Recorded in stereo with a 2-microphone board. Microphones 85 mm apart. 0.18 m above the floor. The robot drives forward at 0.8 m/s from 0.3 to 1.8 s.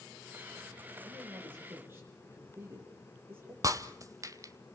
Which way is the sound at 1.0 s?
25° right (ahead or behind).